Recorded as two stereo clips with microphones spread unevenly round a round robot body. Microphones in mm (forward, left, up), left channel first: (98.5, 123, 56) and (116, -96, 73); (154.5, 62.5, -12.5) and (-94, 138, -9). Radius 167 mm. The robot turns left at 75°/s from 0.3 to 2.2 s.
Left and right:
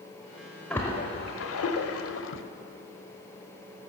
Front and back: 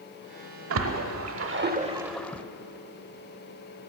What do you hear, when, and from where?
0.7 s a splash: straight behind, 0.8 m; by 2.4 s 70° left, 0.8 m